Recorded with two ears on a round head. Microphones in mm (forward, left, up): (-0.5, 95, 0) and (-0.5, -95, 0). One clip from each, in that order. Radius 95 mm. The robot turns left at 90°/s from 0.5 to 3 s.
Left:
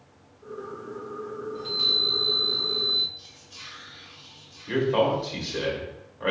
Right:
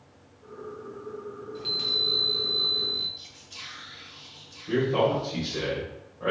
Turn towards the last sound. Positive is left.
turn(degrees=60)  # may be behind; listen again after turning